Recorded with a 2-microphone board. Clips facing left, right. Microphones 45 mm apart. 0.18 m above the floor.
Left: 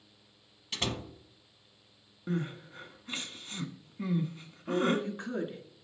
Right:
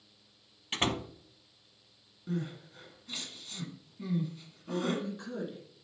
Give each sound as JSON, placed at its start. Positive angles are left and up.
{"t": 0.7, "sound": "a door slam", "side_deg": -35, "distance_m": 0.7}
{"t": 2.3, "sound": "crying", "side_deg": 40, "distance_m": 1.3}
{"t": 4.7, "sound": "a woman speaking", "side_deg": 40, "distance_m": 2.5}